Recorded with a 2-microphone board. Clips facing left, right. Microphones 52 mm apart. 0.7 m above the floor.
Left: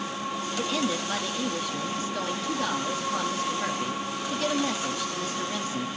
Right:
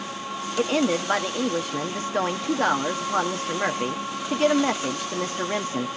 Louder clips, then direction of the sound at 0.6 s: Right 7 dB; 45° right (ahead or behind).